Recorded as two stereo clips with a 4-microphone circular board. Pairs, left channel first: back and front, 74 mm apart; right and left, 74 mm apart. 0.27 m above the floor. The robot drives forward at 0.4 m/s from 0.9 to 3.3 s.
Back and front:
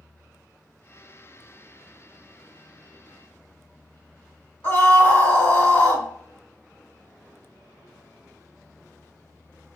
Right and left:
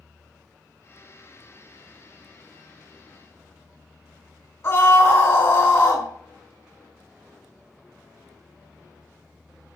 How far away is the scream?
About 2.5 m.